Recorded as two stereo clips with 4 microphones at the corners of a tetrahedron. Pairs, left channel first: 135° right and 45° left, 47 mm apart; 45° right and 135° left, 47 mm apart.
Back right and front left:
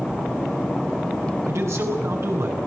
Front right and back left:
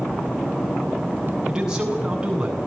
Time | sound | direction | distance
1.5 | a man speaking | 65° left | 8 m